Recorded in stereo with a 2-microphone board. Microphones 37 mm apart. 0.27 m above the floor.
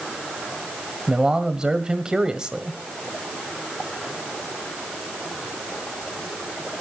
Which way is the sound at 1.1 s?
20° right (ahead or behind).